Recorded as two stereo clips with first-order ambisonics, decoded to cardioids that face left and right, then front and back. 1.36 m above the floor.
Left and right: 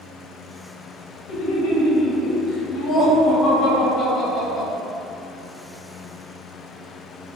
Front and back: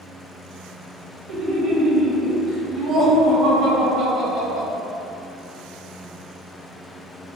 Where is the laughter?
125° left, 0.9 m; by 4.7 s 150° left, 2.5 m.